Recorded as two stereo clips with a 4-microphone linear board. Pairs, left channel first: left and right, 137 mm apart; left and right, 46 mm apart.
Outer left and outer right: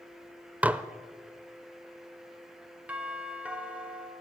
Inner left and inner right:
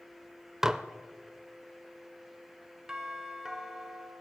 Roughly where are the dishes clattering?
Centre.